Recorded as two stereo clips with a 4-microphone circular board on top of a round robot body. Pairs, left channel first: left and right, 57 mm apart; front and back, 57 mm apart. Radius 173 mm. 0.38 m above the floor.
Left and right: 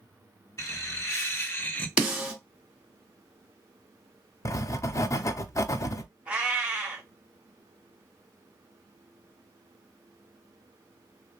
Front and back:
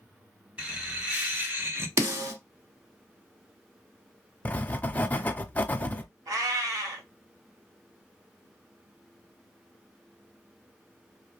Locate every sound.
0.6 s laughter: 110° left, 2 m; by 1.9 s 145° left, 1.1 m
2.0 s a snare drum: 160° right, 1.9 m
4.5 s writing: 60° left, 0.5 m
6.3 s a cat meowing: 165° right, 1.2 m